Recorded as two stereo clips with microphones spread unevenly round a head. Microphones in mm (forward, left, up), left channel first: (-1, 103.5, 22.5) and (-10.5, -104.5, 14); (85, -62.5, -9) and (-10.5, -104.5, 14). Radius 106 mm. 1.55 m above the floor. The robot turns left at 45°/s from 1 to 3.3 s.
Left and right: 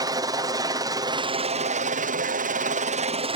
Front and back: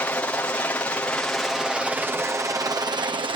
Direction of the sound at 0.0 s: 30° right.